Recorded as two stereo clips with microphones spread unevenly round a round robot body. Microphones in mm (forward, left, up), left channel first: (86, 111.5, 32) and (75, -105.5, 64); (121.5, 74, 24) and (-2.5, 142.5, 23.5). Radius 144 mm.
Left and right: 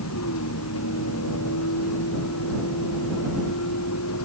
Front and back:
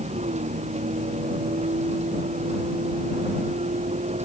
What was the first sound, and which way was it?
A vehicle, 115° left.